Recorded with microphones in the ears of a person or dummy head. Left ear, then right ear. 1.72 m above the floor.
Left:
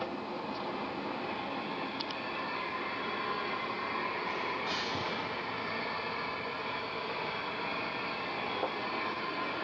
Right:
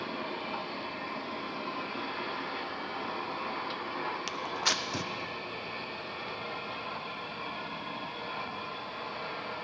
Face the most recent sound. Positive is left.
turn(degrees=-60)  # may be behind; listen again after turning